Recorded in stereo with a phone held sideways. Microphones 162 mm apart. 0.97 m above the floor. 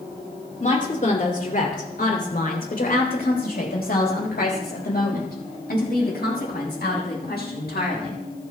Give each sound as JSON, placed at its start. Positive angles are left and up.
{"t": 0.6, "sound": "a woman speaking", "side_deg": 50, "distance_m": 2.5}